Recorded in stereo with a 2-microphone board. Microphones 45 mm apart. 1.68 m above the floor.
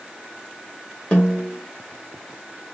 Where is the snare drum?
30° left (ahead or behind), 1.9 m.